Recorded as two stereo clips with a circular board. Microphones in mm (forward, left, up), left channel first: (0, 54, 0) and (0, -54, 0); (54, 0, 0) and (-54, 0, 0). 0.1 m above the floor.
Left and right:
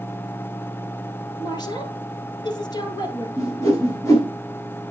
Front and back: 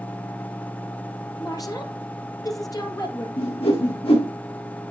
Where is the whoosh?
30° left, 6.5 m.